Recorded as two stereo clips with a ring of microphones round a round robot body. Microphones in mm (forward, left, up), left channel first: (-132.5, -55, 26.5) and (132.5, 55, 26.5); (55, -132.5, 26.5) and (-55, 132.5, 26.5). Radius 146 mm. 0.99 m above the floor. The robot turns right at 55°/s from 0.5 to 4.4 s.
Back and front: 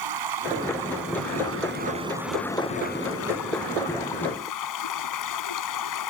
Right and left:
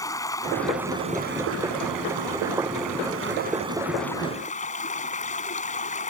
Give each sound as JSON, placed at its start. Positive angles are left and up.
{"t": 0.0, "sound": "running water", "azimuth_deg": 10}